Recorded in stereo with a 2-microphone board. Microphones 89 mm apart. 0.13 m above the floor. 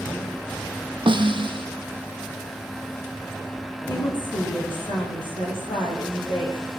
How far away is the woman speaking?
About 9.5 m.